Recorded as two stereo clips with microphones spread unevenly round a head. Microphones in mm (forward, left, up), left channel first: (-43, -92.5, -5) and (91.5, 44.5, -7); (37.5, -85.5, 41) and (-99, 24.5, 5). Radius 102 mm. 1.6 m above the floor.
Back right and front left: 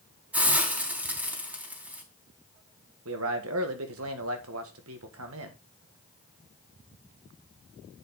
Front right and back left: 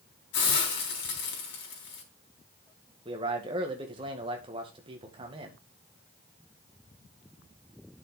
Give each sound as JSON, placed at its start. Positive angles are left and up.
{"t": 0.3, "sound": "a hiss", "azimuth_deg": -35, "distance_m": 3.5}
{"t": 3.0, "sound": "a man speaking", "azimuth_deg": 75, "distance_m": 1.7}